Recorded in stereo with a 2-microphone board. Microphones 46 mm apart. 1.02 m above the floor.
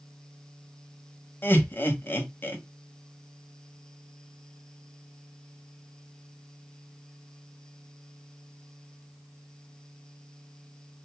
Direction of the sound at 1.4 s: 50° left (ahead or behind).